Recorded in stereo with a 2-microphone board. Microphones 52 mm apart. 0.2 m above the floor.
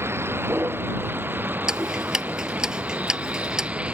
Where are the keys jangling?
No keys jangling in this recording.